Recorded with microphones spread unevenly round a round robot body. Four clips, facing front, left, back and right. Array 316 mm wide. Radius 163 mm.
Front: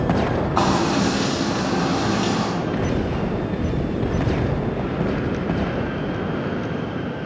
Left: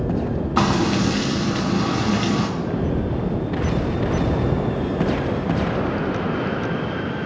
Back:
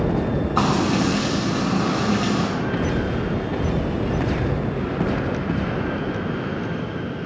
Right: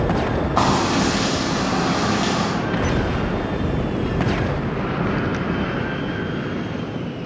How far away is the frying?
About 2.5 m.